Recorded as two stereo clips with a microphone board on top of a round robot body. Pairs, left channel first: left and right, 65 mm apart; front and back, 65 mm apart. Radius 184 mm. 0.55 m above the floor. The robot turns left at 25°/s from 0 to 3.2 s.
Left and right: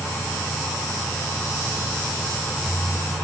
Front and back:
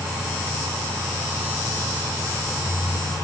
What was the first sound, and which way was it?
Only background noise.